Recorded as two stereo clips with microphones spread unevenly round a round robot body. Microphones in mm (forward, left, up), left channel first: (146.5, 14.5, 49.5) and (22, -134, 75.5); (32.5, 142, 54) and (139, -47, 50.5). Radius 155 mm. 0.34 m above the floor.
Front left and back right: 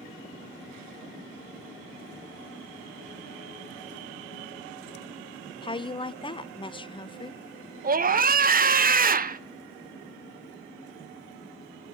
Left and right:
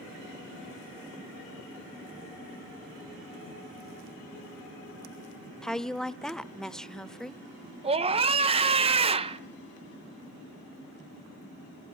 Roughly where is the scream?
Right.